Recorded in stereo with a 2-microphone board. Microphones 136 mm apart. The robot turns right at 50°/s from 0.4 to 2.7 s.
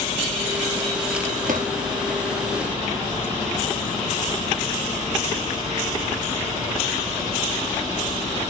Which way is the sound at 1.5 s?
75° right (ahead or behind).